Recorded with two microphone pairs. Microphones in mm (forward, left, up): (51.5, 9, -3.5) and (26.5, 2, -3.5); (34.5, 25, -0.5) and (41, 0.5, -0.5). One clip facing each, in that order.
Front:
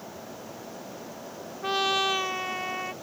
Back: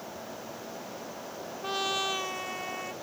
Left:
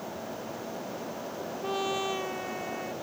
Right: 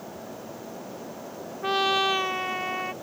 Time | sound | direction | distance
1.6 | a trumpet | 45° right | ?